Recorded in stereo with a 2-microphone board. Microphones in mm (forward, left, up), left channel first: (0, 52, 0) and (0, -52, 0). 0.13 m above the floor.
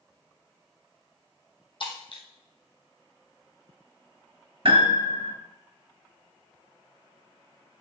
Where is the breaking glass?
55° left (ahead or behind), 2 m.